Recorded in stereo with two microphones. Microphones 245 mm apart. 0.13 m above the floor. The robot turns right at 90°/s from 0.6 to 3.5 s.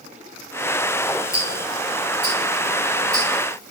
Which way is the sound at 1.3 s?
30° left (ahead or behind).